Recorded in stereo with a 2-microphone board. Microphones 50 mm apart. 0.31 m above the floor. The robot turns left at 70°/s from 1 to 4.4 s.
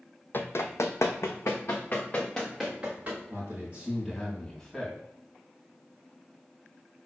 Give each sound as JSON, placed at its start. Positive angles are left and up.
{"t": 0.3, "sound": "running footsteps", "side_deg": 40, "distance_m": 0.6}
{"t": 3.3, "sound": "a man speaking", "azimuth_deg": -120, "distance_m": 2.5}